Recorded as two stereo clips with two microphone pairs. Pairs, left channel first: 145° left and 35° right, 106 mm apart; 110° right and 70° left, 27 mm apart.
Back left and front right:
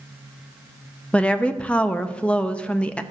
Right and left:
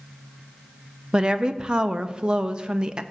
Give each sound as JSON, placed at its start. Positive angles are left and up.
{"t": 1.1, "sound": "a woman speaking", "azimuth_deg": 75, "distance_m": 0.5}